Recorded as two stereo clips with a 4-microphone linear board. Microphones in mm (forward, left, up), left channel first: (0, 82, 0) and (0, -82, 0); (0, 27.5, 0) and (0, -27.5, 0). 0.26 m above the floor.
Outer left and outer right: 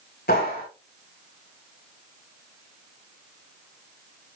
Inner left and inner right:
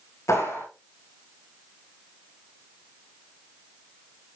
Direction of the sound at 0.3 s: 75° left (ahead or behind).